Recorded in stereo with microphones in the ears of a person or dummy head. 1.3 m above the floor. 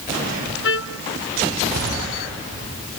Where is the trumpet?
70° left (ahead or behind).